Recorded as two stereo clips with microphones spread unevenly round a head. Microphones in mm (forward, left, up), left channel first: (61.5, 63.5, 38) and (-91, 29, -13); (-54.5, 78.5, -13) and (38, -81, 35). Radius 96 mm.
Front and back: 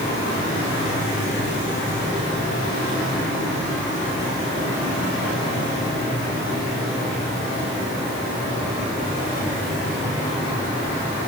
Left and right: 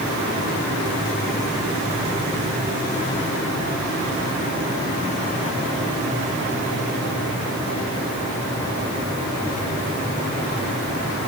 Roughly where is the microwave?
No microwave in this recording.